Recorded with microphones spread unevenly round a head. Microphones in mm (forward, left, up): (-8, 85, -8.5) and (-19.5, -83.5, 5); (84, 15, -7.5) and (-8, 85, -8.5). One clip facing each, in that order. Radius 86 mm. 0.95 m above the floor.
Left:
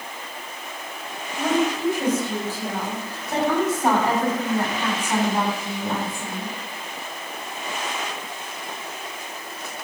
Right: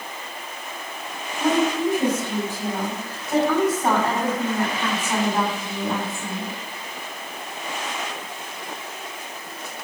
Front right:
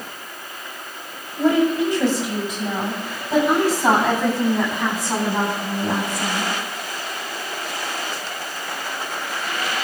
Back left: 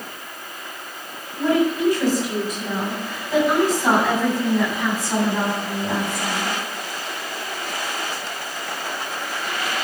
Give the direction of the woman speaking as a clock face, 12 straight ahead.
1 o'clock.